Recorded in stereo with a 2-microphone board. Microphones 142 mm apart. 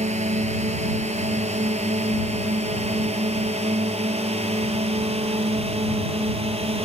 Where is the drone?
55° right (ahead or behind); by 6.9 s 45° right (ahead or behind).